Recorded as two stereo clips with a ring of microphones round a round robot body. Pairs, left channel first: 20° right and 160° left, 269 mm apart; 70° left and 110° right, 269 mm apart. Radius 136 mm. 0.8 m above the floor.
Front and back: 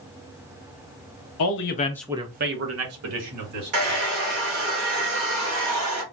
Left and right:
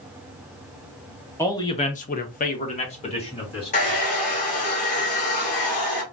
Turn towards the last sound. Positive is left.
turn(degrees=130)